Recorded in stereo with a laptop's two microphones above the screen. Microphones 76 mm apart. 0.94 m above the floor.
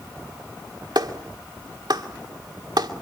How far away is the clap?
About 2.5 m.